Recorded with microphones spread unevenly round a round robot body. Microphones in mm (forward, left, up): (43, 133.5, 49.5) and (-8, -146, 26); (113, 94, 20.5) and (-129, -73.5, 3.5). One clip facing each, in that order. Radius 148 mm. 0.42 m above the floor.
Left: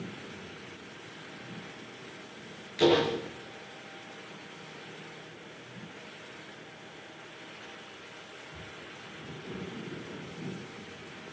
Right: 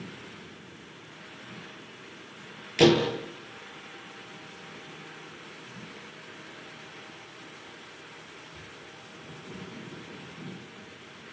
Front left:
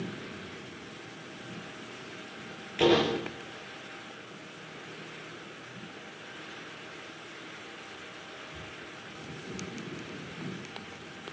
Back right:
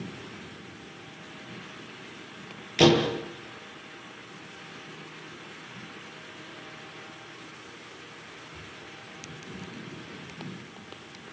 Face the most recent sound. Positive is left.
turn(degrees=-120)